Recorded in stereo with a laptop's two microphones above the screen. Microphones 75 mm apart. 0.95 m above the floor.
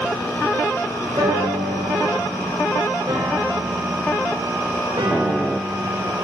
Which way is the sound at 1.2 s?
75° right (ahead or behind).